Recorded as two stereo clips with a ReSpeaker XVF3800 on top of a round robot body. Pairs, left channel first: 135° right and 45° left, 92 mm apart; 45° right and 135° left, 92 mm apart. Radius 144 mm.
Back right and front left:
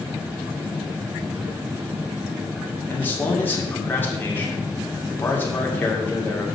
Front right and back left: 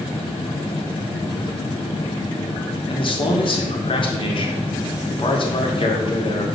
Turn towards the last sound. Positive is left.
turn(degrees=-65)